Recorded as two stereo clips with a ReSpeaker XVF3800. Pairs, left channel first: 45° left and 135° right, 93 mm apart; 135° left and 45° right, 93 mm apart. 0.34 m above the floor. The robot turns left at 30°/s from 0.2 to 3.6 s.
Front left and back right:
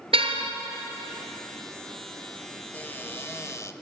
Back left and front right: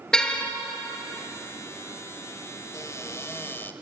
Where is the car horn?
145° right, 2 m; by 0.5 s 150° right, 2 m.